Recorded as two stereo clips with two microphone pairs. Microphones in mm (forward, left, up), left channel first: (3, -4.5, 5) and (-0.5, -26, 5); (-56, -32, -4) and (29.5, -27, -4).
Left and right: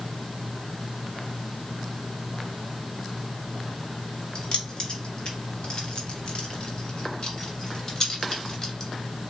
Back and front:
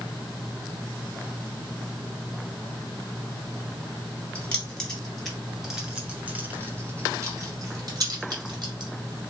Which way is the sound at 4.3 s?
115° left.